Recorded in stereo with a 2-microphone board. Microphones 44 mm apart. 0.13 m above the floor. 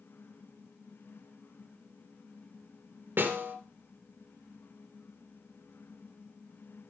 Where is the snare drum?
55° right (ahead or behind), 1.9 m.